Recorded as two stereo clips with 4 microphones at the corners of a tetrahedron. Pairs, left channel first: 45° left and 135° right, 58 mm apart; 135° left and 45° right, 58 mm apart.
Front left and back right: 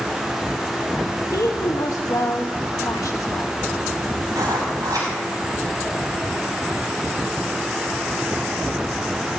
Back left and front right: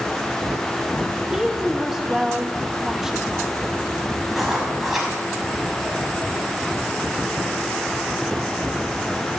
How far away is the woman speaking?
About 1.6 m.